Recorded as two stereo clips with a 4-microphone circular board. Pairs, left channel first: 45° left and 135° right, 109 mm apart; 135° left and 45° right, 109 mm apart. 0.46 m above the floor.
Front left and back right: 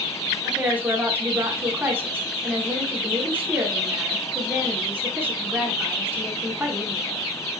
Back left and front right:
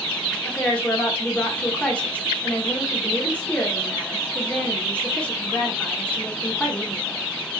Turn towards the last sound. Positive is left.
turn(degrees=-165)